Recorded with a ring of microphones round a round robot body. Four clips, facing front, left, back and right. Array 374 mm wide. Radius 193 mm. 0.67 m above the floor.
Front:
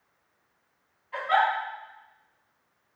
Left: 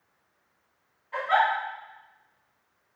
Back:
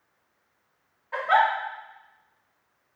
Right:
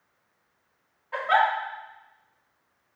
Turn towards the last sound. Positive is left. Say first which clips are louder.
# right 1 dB, back 3 dB
turn(degrees=-155)